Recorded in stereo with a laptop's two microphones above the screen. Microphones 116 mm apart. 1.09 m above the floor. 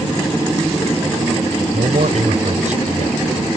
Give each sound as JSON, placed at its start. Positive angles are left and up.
{"t": 1.7, "sound": "a man speaking", "side_deg": -85}